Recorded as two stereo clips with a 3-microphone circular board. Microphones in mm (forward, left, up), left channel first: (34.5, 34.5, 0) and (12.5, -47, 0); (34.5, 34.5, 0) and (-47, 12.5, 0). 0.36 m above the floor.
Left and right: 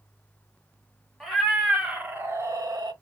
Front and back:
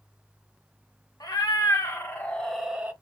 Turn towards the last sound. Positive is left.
turn(degrees=-100)